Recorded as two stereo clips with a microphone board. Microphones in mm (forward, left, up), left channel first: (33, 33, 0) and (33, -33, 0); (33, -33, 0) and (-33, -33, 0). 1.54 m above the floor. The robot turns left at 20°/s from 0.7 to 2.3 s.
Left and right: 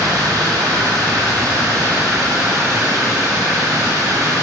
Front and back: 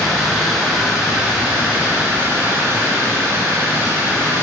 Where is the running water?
90° right, 4 m; by 4.4 s 120° right, 4 m.